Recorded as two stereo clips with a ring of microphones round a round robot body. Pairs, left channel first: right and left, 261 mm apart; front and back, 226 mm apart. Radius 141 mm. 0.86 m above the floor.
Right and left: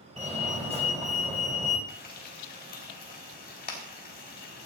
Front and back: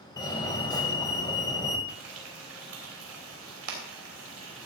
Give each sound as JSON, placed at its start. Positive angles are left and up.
{"t": 0.2, "sound": "a fire alarm", "azimuth_deg": 55, "distance_m": 1.9}
{"t": 1.9, "sound": "frying", "azimuth_deg": -145, "distance_m": 3.0}